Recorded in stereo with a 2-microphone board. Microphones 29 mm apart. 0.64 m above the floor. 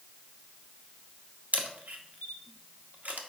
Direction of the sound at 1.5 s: 60° right (ahead or behind).